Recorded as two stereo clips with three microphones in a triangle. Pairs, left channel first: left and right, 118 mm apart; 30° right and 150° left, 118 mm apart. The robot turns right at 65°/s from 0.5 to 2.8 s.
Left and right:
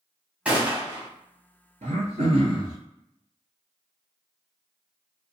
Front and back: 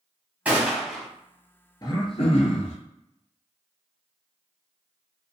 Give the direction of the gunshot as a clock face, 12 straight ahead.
5 o'clock.